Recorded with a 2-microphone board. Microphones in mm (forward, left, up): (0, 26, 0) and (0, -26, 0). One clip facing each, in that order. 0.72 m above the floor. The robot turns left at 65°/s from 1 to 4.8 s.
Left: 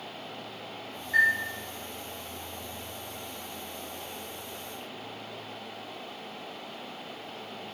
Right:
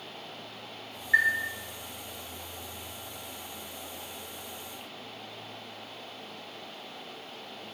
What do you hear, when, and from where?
1.1 s a chime: 40° right (ahead or behind), 2.5 m; by 1.3 s 55° right (ahead or behind), 2.5 m